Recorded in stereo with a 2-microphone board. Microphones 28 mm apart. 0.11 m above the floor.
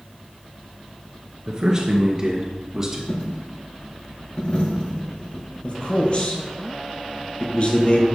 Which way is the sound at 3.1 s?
55° left (ahead or behind).